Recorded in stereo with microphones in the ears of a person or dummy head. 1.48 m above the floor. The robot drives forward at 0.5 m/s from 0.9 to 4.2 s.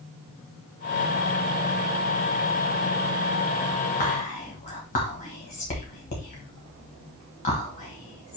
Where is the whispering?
45° left (ahead or behind), 1.2 m; by 8.4 s 40° left (ahead or behind), 1.2 m.